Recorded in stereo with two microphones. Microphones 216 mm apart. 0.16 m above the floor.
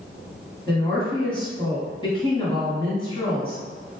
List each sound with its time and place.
0.7 s a woman speaking: 25° left (ahead or behind), 1.2 m